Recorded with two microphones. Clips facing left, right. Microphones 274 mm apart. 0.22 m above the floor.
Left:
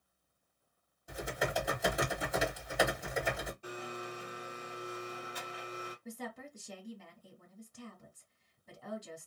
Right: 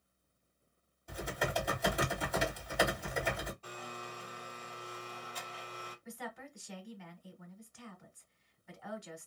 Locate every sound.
1.1 s typing on a keyboard: 5° left (ahead or behind), 1.6 m
3.6 s a blender: 15° left (ahead or behind), 1.7 m
6.0 s a woman speaking: 45° left (ahead or behind), 1.4 m